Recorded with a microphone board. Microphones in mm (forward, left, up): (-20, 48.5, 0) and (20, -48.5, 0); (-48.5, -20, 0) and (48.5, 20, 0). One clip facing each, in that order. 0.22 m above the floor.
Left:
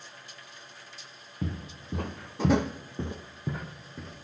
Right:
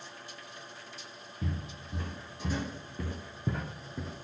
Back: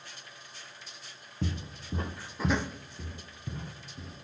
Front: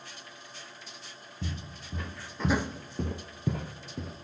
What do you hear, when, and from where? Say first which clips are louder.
1.4 s footsteps: left 3 dB, back 4 dB; 160° left, 1.6 m; by 4.2 s 15° left, 1.9 m